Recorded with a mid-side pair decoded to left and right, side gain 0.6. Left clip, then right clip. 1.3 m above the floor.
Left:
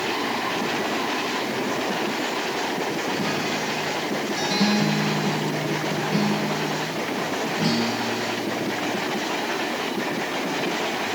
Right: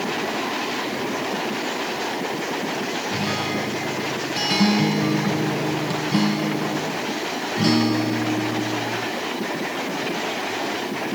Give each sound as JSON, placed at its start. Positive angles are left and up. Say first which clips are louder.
{"t": 3.1, "sound": "a guitar", "louder": "right 1 dB", "azimuth_deg": -45, "distance_m": 4.0}